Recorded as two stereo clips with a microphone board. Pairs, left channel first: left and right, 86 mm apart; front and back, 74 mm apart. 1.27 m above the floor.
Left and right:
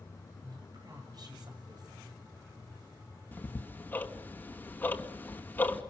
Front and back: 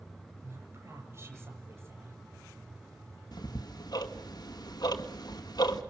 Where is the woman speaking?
125° right, 7.5 m.